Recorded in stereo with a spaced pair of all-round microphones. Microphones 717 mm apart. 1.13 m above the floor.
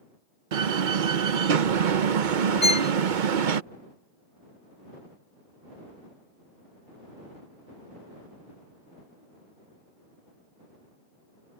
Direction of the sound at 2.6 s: 40° left (ahead or behind).